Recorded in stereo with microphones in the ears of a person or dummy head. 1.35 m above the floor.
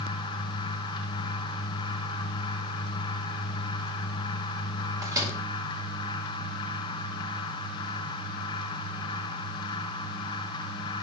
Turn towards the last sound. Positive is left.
turn(degrees=-15)  # may be behind; listen again after turning